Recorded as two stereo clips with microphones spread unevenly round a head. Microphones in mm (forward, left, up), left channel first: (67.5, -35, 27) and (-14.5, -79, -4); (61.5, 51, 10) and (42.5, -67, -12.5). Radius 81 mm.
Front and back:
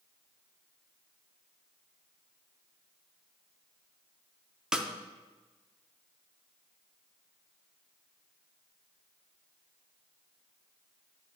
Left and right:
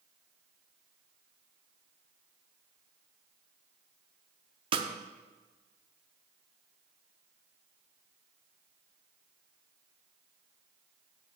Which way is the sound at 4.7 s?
55° right.